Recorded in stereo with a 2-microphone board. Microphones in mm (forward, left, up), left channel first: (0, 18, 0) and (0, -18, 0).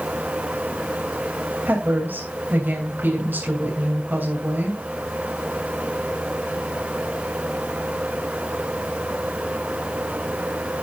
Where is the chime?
No chime in this recording.